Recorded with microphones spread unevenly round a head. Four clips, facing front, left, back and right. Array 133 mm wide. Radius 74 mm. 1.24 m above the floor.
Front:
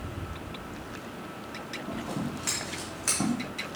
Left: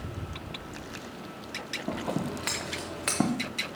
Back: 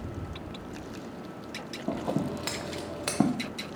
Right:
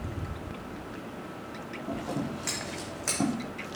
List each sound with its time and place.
1.9 s scissors: 160° left, 0.7 m